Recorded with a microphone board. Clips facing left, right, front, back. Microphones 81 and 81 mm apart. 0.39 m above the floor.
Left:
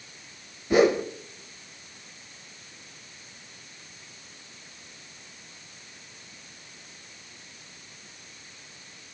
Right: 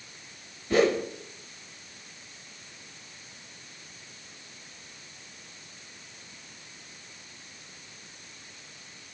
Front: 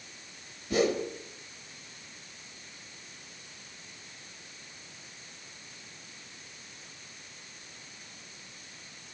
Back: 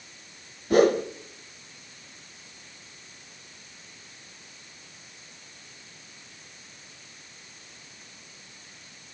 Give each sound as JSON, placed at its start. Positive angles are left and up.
{"t": 0.7, "sound": "a whoosh", "azimuth_deg": 165, "distance_m": 1.2}